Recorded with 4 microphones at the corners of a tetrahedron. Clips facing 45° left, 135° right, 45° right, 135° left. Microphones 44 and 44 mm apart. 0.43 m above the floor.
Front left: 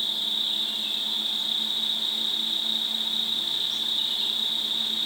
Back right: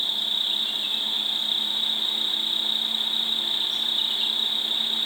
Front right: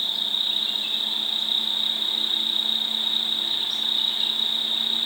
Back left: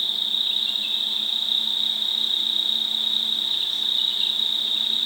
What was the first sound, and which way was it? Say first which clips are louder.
An insect: back right 2 dB, back left 1 dB; 160° right.